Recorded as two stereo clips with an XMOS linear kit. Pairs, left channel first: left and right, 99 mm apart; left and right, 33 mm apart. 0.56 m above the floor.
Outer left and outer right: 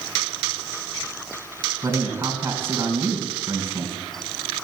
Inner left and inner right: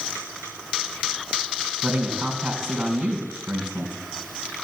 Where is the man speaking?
20° right (ahead or behind), 4.5 m.